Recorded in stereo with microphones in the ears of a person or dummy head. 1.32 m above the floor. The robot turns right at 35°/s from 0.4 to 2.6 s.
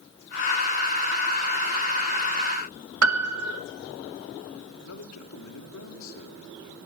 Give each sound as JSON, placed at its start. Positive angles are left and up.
{"t": 3.0, "sound": "a piano", "side_deg": -80, "distance_m": 1.1}
{"t": 4.8, "sound": "a man speaking", "side_deg": 75, "distance_m": 3.0}